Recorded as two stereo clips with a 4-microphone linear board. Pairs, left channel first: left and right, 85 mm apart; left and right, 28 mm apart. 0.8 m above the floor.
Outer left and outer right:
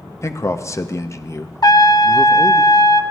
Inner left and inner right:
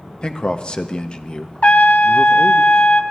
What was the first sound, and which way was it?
A man speaking, 35° left (ahead or behind).